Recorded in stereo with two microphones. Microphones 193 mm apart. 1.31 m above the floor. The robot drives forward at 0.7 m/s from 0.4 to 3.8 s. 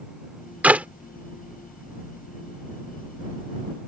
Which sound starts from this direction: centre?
A clap, at 0.6 s.